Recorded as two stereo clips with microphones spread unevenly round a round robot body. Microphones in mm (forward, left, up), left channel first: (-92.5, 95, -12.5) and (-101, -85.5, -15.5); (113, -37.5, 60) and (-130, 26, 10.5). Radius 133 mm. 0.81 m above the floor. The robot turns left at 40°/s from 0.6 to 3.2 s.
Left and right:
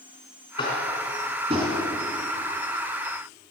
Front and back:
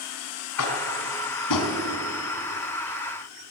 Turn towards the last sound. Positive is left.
turn(degrees=-90)